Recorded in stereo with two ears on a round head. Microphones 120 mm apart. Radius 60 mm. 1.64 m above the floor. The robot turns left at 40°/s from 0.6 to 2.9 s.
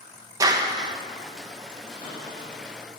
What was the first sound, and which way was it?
A clap, 25° right (ahead or behind).